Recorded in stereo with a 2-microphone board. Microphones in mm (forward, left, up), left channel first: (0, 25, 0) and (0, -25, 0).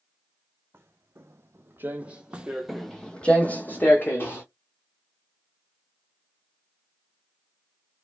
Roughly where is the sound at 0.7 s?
Right.